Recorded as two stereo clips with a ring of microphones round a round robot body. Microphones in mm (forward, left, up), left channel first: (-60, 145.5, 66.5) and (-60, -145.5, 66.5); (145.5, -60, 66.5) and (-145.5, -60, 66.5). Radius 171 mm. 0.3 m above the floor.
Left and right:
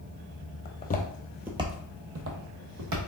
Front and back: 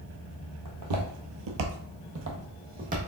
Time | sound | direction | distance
0.7 | footsteps | 140° left | 0.9 m